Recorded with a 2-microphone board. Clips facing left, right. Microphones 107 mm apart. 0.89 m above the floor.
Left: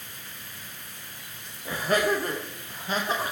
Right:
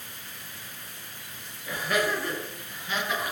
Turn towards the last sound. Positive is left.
turn(degrees=30)  # may be behind; listen again after turning